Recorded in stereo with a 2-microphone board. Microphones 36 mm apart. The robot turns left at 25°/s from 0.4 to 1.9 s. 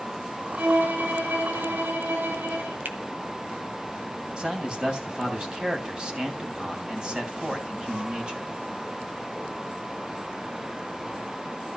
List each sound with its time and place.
0.6 s a violin: 45° right, 7 m; by 2.8 s 80° right, 7 m
2.9 s a finger snap: 65° right (ahead or behind), 1.5 m
4.4 s a man speaking: 25° right (ahead or behind), 3 m